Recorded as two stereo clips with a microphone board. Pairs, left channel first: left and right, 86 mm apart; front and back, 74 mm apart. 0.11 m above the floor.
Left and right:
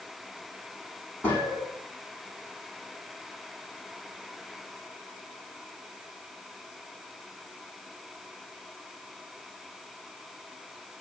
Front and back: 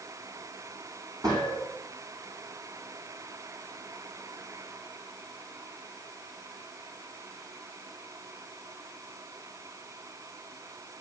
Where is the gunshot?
155° left, 6.5 m.